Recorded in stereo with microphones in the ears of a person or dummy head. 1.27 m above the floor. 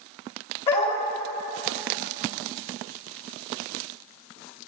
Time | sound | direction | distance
0.7 | a dog barking | 40° left (ahead or behind) | 2.5 m